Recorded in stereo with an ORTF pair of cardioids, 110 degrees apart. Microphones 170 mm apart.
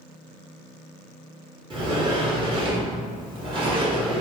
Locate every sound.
1.7 s a sliding door: 30° right, 1.0 m